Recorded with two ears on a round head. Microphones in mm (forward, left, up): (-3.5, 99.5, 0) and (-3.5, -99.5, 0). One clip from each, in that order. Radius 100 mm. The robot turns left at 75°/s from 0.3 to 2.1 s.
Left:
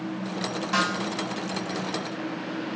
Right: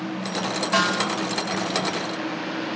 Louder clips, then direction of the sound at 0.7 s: Right 4 dB; 25° right (ahead or behind).